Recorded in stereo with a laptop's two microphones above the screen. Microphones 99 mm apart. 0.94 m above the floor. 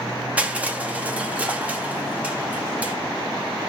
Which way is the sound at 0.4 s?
15° right (ahead or behind).